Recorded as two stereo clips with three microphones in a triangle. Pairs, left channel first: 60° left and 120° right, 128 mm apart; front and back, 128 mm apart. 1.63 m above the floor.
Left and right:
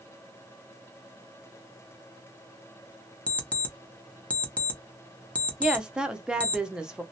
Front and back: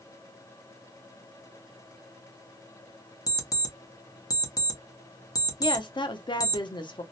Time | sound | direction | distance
3.3 | an alarm clock | 10° right | 0.7 m
5.6 | a woman speaking | 35° right | 0.6 m